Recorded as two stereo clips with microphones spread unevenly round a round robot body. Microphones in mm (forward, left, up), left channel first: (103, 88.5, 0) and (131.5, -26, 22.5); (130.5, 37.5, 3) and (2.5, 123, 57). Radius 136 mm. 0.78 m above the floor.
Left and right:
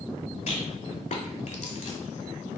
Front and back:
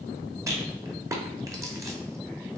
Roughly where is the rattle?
Left.